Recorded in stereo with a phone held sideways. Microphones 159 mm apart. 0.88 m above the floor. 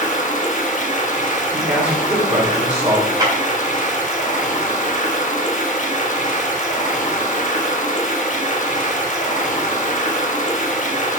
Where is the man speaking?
10° right (ahead or behind), 2 m.